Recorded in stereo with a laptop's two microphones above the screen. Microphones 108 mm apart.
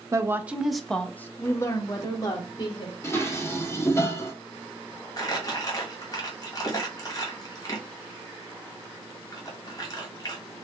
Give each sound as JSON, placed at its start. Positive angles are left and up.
{"t": 0.1, "sound": "a woman speaking", "side_deg": -30, "distance_m": 0.6}
{"t": 3.0, "sound": "dishes clattering", "side_deg": 25, "distance_m": 1.1}
{"t": 5.2, "sound": "crumpling", "side_deg": 35, "distance_m": 1.0}